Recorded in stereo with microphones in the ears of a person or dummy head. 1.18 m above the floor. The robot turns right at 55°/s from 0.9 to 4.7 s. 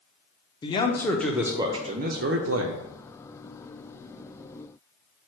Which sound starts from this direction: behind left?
A man speaking, at 0.6 s.